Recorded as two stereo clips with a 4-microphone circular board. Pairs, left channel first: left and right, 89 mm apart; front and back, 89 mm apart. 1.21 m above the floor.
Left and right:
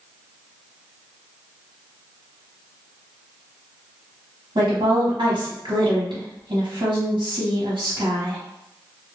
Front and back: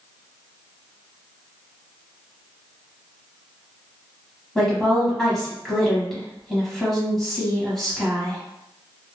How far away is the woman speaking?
About 1.0 m.